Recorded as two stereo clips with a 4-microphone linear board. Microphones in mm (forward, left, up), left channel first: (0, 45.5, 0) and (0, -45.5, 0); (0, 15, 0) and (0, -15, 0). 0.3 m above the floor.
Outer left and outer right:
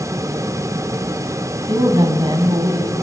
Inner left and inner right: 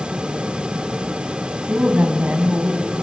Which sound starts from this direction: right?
A woman speaking, at 1.7 s.